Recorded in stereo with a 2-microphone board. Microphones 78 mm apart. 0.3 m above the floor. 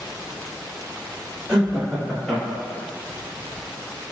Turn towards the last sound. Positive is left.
turn(degrees=15)  # may be behind; listen again after turning